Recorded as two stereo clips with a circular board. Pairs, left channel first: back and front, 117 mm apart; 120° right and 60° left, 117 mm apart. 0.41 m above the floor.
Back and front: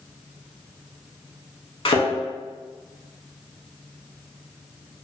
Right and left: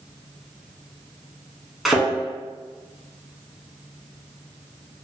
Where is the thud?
150° left, 0.7 m.